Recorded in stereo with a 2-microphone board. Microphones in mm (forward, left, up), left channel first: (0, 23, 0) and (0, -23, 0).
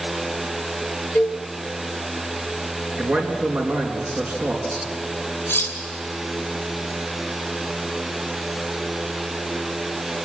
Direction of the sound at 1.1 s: 50° left (ahead or behind).